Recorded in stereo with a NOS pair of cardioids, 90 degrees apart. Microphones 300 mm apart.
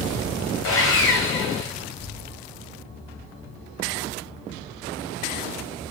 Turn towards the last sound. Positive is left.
turn(degrees=45)